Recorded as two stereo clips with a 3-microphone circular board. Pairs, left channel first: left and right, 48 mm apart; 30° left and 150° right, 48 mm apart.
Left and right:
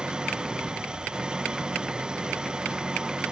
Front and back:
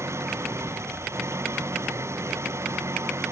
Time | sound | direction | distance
0.0 | an engine running | 160° right | ?